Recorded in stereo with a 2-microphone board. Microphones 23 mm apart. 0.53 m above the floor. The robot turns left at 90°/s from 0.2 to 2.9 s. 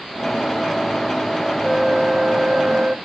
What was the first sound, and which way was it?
A flute, 15° right.